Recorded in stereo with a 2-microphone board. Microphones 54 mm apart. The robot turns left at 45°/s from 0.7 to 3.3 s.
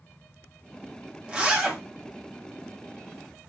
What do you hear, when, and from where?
1.3 s a zipper: 15° right (ahead or behind), 0.7 m; by 1.8 s 10° right (ahead or behind), 0.7 m